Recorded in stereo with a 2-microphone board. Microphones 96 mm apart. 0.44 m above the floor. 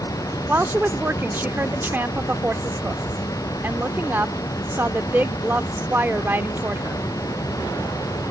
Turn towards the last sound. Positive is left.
turn(degrees=-20)  # may be behind; listen again after turning